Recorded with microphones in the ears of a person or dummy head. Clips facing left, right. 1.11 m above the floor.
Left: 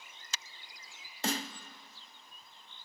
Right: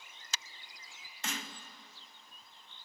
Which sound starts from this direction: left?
A snare drum, at 1.2 s.